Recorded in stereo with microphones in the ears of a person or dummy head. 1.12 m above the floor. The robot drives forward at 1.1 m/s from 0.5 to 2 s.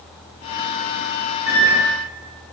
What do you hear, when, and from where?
1.5 s a microwave: 65° right (ahead or behind), 2.0 m; by 1.8 s 75° right (ahead or behind), 1.8 m